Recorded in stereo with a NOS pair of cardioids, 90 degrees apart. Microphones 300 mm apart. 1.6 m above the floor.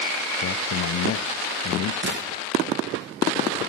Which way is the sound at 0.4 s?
50° left.